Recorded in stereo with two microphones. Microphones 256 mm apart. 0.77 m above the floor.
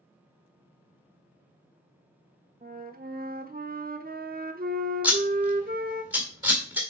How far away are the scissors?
About 1.9 m.